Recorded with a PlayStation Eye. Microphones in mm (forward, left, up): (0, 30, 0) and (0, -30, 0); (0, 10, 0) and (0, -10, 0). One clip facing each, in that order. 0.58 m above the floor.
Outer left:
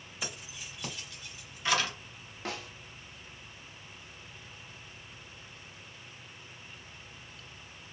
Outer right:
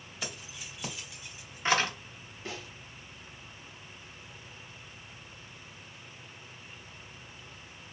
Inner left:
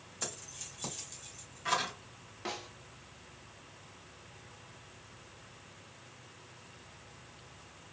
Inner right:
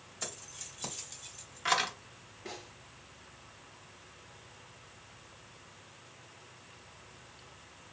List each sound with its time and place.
0.2 s keys jangling: 10° left (ahead or behind), 1.6 m; by 1.9 s 40° right (ahead or behind), 1.1 m
2.5 s a snare drum: 70° left (ahead or behind), 1.0 m